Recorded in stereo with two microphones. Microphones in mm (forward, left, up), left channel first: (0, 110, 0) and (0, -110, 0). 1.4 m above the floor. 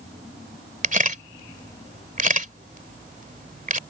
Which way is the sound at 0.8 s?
35° right (ahead or behind).